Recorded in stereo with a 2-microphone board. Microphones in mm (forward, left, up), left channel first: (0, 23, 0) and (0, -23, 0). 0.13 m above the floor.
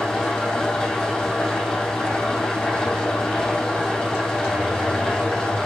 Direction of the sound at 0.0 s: 10° left (ahead or behind).